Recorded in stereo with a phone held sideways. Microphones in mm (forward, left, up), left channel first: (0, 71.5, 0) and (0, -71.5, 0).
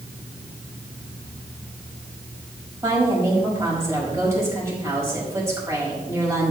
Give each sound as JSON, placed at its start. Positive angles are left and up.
{"t": 2.8, "sound": "a woman speaking", "side_deg": -20, "distance_m": 5.5}